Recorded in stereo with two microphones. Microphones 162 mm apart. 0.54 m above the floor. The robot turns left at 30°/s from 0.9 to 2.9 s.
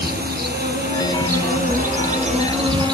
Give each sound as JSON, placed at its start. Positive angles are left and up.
{"t": 0.0, "sound": "an insect", "azimuth_deg": -95, "distance_m": 5.5}